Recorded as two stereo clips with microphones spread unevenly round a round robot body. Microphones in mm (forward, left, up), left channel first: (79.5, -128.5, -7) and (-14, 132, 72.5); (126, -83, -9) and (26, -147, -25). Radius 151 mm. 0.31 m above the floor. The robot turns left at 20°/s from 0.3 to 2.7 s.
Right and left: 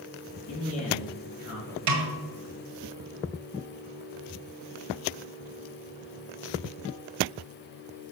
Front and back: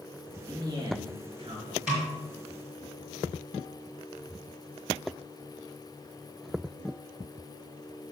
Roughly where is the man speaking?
Right.